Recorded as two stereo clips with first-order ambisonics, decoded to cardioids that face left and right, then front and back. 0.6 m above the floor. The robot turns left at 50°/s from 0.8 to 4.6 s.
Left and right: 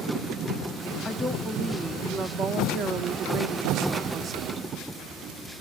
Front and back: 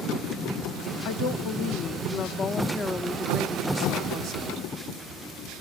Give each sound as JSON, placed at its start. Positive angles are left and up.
{"t": 1.1, "sound": "a woman speaking", "azimuth_deg": 15, "distance_m": 0.8}